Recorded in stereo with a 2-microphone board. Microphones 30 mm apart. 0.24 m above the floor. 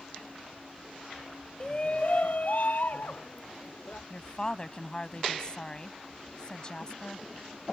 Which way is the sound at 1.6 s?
30° left (ahead or behind).